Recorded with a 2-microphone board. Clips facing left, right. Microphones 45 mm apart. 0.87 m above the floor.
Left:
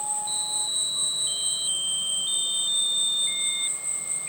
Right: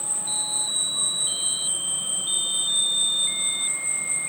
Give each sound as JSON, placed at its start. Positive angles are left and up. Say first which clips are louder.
{"t": 0.0, "sound": "an insect", "louder": "left 2 dB", "side_deg": -15, "distance_m": 1.0}